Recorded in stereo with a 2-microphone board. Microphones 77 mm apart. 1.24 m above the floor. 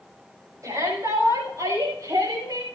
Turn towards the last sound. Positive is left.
turn(degrees=-55)  # may be behind; listen again after turning